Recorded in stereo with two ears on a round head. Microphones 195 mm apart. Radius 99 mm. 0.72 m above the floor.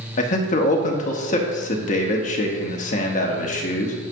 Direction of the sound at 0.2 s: 35° left (ahead or behind).